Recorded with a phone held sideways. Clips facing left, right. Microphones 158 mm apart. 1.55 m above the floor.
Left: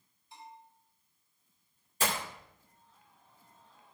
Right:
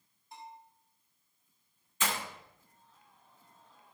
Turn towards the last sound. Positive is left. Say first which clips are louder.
# left 2 dB
turn(degrees=40)  # may be behind; listen again after turning